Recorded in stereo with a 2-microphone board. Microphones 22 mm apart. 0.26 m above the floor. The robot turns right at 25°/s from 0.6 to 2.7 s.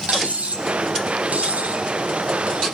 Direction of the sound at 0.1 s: 65° right (ahead or behind).